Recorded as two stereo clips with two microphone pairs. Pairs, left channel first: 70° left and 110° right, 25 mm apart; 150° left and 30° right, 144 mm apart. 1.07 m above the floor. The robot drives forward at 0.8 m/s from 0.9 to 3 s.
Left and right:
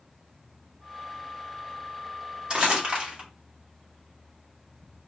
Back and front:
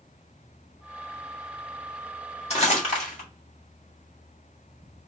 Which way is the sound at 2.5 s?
170° right.